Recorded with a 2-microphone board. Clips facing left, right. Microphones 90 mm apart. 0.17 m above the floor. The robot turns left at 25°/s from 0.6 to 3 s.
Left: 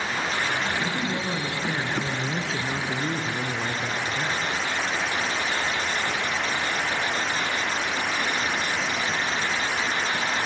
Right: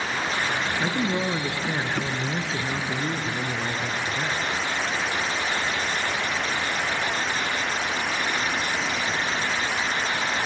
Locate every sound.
0.8 s a man speaking: 130° right, 1.7 m; by 4.4 s 175° left, 1.7 m